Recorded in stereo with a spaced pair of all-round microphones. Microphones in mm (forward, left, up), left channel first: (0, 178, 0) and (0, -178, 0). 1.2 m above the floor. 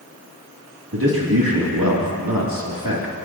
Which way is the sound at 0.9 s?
80° right.